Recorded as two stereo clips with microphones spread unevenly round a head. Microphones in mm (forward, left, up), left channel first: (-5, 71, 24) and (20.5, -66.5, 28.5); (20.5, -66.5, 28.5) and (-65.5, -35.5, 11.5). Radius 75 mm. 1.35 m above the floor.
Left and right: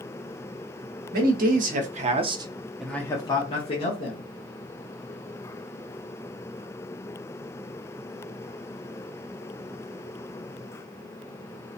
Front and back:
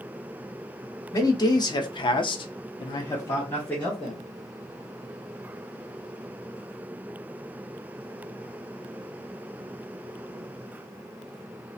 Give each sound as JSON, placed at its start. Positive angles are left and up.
{"t": 1.1, "sound": "a man speaking", "azimuth_deg": -75, "distance_m": 1.0}